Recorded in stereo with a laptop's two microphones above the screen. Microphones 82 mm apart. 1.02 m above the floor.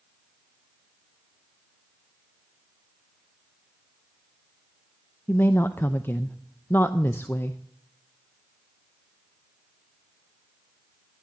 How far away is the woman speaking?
About 0.5 m.